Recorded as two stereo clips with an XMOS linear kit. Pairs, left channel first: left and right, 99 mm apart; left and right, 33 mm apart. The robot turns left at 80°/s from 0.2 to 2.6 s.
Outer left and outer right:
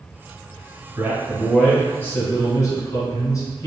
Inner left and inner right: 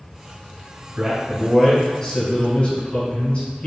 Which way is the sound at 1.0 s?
135° right.